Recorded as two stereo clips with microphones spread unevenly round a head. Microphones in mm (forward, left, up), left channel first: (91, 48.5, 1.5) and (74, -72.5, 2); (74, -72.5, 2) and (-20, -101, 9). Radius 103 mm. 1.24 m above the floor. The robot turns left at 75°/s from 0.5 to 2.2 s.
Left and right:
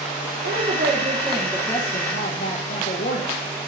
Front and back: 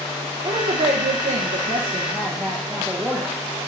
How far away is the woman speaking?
About 0.7 m.